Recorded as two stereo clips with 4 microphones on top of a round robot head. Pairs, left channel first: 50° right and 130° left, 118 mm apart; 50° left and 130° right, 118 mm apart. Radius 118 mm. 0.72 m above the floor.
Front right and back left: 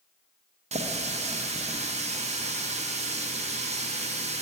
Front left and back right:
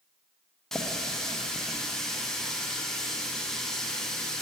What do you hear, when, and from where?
0.7 s a running tap: 135° left, 0.7 m